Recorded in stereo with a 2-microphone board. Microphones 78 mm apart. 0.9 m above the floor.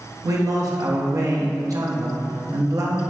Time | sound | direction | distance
0.2 | a man speaking | 50° right (ahead or behind) | 0.8 m